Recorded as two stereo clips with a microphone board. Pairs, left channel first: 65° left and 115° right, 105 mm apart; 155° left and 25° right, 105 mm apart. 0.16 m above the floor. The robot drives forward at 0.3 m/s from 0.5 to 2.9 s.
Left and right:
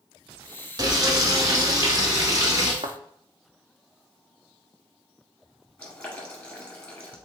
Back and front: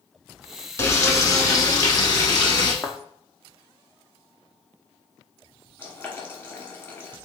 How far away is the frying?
About 0.9 m.